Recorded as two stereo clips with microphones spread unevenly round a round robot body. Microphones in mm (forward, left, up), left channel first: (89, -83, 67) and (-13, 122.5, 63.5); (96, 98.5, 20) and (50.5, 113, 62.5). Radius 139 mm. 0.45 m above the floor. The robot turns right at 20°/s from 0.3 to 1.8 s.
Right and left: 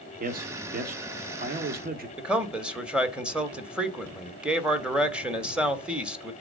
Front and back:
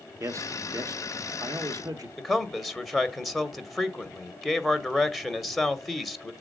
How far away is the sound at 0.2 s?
About 1.1 m.